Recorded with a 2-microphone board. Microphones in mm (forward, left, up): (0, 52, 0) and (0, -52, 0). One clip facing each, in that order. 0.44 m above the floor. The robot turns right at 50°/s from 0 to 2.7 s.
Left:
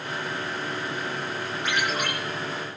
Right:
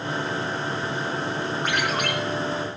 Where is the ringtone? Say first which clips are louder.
Even; 50° right (ahead or behind), 7 m; by 2.1 s 75° right (ahead or behind), 7 m.